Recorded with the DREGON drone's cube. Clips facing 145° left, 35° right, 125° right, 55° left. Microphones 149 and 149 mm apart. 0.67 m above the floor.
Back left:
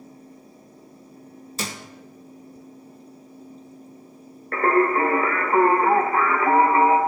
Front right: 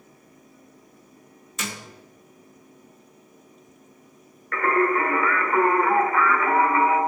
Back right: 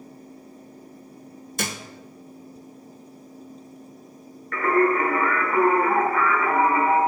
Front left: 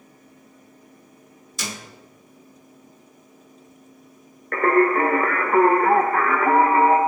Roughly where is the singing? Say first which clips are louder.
Back left 2 dB, front left 2 dB; left.